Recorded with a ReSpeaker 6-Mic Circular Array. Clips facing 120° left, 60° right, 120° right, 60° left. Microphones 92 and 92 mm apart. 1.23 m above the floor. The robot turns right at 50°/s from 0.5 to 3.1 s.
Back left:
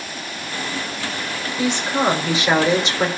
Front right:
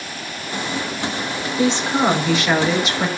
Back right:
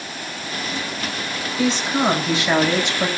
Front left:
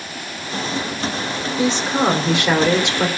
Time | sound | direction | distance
1.6 | a woman speaking | 5° right | 4.5 m